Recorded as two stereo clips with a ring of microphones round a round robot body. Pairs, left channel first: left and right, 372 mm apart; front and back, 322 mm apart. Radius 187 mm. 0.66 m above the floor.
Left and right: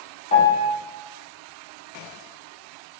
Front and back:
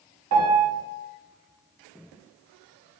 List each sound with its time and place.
0.3 s a piano: 155° left, 1.1 m